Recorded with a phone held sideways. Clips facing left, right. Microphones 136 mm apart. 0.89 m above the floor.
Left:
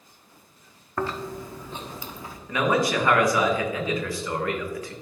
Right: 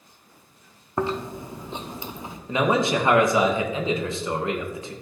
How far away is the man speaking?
About 0.8 m.